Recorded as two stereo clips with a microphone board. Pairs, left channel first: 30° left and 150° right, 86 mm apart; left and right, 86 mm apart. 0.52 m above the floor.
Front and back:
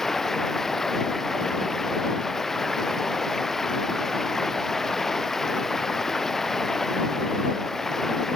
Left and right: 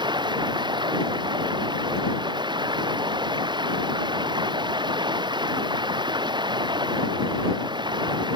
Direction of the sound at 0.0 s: 55° right.